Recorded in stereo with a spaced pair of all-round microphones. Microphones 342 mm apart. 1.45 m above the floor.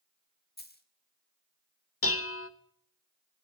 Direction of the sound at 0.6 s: 30° left (ahead or behind).